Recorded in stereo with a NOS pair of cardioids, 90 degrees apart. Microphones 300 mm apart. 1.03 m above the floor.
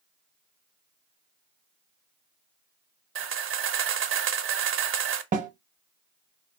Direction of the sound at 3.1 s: 45° right.